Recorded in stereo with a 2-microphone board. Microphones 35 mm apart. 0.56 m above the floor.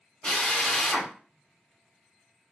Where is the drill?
20° left (ahead or behind), 1.2 m.